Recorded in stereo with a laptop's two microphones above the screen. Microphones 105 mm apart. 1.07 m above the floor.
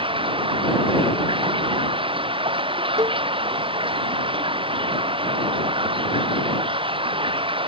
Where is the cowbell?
35° right (ahead or behind).